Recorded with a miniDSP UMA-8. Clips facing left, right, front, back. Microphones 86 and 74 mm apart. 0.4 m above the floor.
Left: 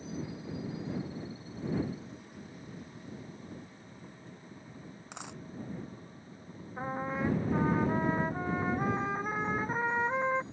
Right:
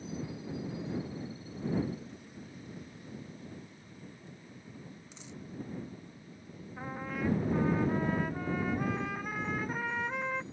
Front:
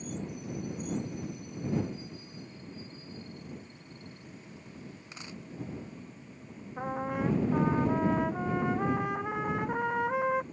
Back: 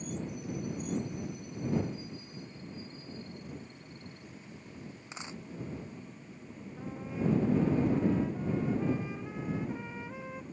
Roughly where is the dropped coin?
Behind left.